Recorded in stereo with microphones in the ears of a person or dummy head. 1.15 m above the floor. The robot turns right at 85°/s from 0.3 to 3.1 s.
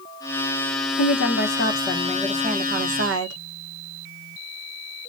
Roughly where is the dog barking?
No dog barking in this recording.